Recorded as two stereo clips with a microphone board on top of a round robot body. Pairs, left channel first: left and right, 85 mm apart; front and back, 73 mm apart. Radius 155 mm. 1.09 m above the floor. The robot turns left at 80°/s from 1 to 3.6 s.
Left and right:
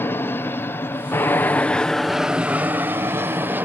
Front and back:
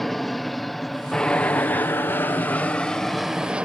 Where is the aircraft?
85° left; by 3.6 s 125° right.